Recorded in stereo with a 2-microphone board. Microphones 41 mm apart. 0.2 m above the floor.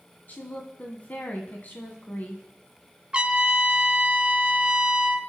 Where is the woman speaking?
40° left (ahead or behind), 1.4 m.